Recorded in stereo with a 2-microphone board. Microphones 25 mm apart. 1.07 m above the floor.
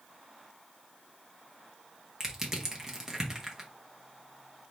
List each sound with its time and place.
2.2 s crushing: 15° right (ahead or behind), 0.9 m